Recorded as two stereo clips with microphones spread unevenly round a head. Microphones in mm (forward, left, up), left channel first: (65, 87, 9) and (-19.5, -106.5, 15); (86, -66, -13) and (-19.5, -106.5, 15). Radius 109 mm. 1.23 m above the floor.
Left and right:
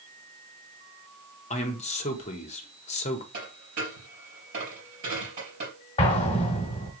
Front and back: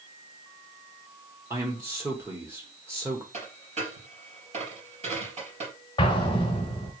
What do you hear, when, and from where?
1.5 s a man speaking: 120° left, 0.7 m
3.3 s a dropped coin: 165° right, 3.5 m
6.0 s an explosion: 35° left, 1.0 m